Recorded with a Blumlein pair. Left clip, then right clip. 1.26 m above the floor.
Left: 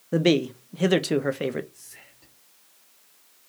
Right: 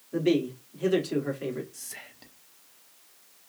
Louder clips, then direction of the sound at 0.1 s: Left 4 dB; 40° left.